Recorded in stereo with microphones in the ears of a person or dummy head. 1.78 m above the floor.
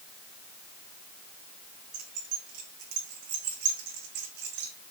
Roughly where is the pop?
No pop in this recording.